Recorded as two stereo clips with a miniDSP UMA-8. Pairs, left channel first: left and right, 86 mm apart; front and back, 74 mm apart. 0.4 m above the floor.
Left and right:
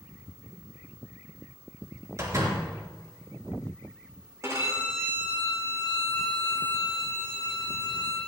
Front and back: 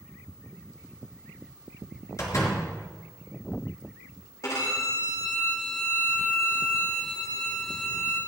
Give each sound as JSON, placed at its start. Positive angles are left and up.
{"t": 2.2, "sound": "a door slam", "azimuth_deg": -40, "distance_m": 3.5}
{"t": 4.4, "sound": "a violin", "azimuth_deg": -35, "distance_m": 5.5}